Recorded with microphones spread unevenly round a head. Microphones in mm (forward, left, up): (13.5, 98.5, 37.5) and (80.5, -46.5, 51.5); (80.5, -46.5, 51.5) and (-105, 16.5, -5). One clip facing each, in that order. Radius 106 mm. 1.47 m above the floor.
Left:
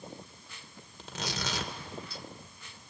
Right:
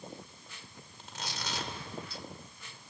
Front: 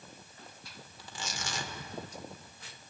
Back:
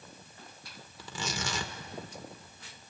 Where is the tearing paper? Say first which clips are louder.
Left 5 dB, back 6 dB; 150° left, 1.9 m.